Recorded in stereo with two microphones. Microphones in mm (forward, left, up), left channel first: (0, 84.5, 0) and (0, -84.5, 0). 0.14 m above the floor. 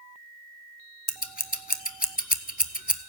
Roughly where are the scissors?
Left.